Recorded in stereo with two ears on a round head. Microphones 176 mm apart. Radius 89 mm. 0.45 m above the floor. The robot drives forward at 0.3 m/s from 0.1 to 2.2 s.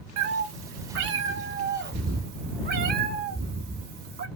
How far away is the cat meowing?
About 0.8 m.